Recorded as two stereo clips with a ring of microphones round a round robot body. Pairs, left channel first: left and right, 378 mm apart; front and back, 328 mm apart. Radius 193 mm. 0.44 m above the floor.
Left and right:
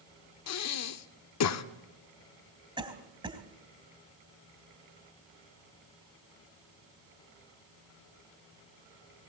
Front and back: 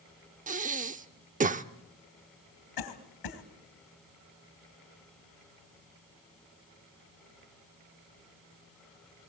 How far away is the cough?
About 2.5 m.